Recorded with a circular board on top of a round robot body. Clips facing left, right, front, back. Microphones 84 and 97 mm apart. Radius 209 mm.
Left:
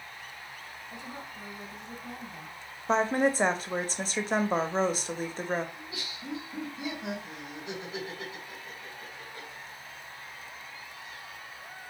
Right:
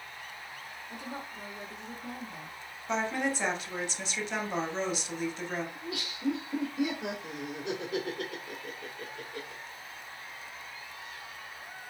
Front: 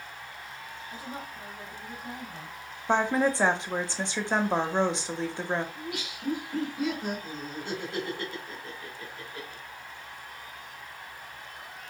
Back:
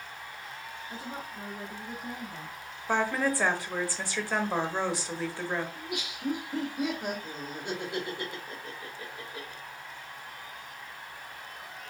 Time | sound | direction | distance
0.9 | a woman speaking | 120° right | 2 m
2.9 | a woman speaking | 60° left | 1.2 m
5.8 | laughter | 105° right | 2 m